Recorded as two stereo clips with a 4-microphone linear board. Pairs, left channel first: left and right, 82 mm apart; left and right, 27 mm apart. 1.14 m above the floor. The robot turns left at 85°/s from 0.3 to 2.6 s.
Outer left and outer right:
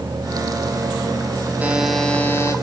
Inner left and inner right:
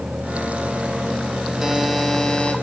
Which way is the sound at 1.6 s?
155° right.